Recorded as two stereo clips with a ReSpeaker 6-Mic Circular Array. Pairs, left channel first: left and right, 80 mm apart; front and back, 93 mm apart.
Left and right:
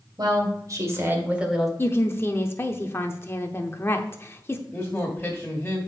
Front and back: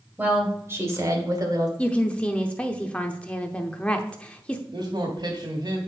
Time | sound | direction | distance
0.2 | a woman speaking | 110° right | 2.5 m
1.8 | a woman speaking | 65° left | 0.8 m
4.7 | a man speaking | 165° left | 1.5 m